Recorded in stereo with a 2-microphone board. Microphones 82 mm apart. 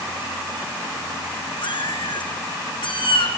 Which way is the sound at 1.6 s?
75° left (ahead or behind).